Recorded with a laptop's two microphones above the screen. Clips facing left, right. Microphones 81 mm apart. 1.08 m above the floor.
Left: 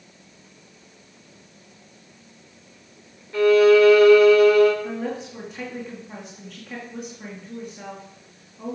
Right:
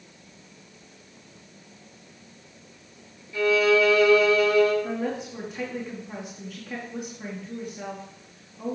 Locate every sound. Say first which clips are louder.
3.3 s a violin: left 7 dB; 60° left (ahead or behind), 2.5 m
4.8 s a woman speaking: even; centre (ahead or behind), 2 m